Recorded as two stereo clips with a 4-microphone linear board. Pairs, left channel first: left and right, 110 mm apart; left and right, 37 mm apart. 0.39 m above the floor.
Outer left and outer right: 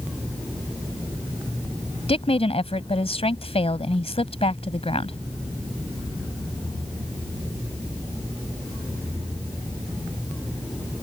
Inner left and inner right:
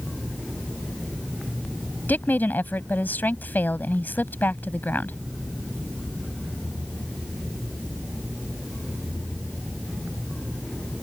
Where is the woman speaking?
65° left (ahead or behind).